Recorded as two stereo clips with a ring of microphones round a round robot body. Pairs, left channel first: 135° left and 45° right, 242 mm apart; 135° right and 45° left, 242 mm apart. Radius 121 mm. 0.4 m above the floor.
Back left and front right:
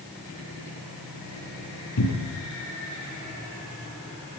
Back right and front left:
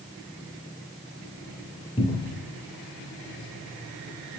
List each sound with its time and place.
2.0 s a cupboard door: 155° left, 7 m